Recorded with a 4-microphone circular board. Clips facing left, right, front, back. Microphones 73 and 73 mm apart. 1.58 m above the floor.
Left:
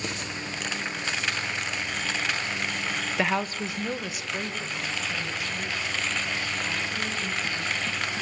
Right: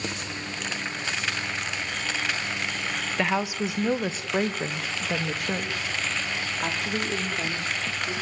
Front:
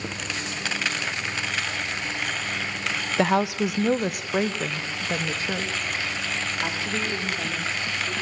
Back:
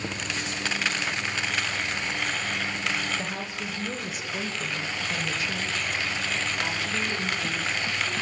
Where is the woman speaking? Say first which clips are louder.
Right 1 dB, front 12 dB; 5° left, 1.4 m; by 8.1 s 70° right, 6 m.